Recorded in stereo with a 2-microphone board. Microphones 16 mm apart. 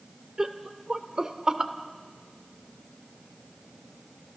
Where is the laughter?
45° right (ahead or behind), 1.4 m.